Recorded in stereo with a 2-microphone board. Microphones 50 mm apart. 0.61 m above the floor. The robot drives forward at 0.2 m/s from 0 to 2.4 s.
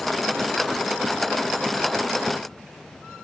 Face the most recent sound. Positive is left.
No sound to turn to.